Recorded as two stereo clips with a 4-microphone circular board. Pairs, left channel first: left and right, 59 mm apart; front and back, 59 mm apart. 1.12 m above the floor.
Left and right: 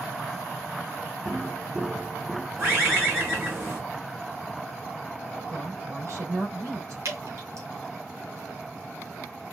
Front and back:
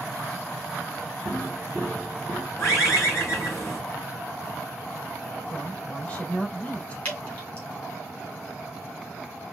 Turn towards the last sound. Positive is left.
turn(degrees=-55)